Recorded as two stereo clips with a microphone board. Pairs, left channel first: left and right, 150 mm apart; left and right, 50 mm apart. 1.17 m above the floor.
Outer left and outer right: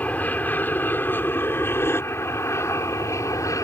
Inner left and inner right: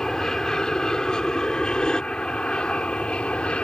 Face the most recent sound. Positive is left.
turn(degrees=20)  # may be behind; listen again after turning